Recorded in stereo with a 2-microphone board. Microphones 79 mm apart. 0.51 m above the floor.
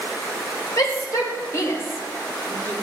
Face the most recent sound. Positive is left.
turn(degrees=20)  # may be behind; listen again after turning